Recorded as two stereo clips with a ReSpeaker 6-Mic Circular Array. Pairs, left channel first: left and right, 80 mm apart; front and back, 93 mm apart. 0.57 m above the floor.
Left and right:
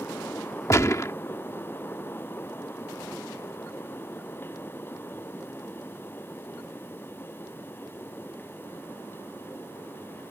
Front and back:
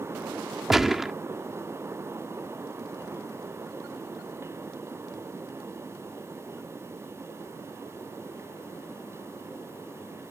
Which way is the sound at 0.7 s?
100° left.